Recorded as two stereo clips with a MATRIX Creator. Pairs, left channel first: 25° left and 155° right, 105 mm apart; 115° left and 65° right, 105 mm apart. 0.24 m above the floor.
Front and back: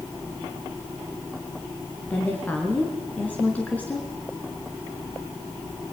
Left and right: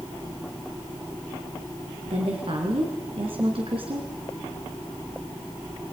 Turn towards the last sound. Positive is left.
turn(degrees=-50)